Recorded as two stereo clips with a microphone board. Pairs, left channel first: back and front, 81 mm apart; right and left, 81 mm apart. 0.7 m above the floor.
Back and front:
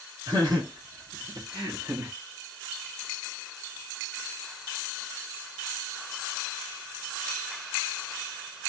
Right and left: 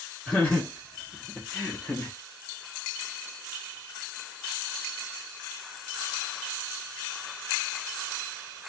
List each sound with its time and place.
0.3 s laughter: 10° right, 1.6 m; by 2.1 s 25° right, 0.8 m